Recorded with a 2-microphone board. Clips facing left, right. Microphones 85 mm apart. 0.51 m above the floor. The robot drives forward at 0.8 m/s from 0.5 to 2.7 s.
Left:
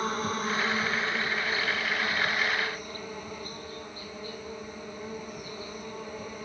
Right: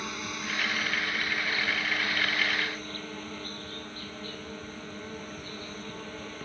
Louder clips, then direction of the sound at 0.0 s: Left 7 dB; 40° left (ahead or behind).